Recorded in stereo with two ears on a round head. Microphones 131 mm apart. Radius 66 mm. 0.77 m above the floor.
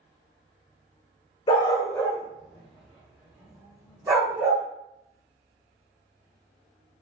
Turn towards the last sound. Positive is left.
turn(degrees=-20)  # may be behind; listen again after turning